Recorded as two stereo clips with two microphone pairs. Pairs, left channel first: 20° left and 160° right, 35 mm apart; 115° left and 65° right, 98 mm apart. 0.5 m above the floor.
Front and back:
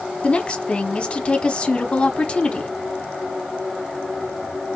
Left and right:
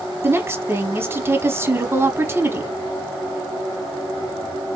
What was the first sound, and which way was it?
A woman speaking, 20° right.